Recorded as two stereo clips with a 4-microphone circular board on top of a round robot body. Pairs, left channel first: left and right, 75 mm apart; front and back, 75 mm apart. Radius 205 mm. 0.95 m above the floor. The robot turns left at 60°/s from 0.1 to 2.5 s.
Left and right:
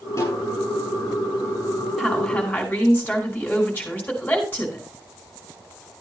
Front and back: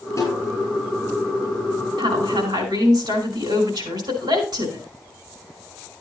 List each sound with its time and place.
0.2 s a snare drum: 40° left, 7.5 m; by 0.5 s 20° left, 7.5 m
2.0 s a woman speaking: 170° right, 4.5 m; by 4.8 s 160° left, 4.5 m